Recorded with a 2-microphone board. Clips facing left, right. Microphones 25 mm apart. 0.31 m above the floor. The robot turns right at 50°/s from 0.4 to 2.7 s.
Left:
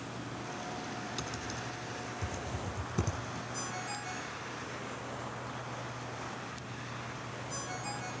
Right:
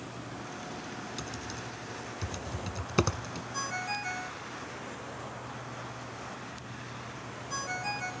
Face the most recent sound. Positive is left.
turn(degrees=-35)  # may be behind; listen again after turning